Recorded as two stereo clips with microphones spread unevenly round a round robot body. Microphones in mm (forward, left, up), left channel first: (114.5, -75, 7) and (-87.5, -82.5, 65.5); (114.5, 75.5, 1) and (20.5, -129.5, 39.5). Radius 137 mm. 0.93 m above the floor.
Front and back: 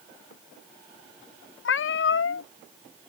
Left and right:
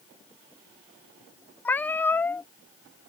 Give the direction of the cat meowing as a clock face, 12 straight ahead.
1 o'clock.